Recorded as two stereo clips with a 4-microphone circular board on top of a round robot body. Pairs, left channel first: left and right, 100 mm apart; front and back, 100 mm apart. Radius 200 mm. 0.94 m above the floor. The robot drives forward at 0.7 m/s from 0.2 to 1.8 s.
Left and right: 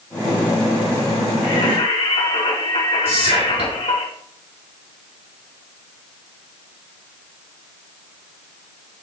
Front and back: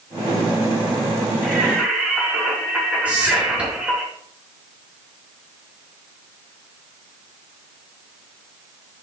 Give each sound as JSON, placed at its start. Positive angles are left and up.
{"t": 1.4, "sound": "singing", "azimuth_deg": 95, "distance_m": 3.5}
{"t": 3.0, "sound": "whispering", "azimuth_deg": -105, "distance_m": 6.5}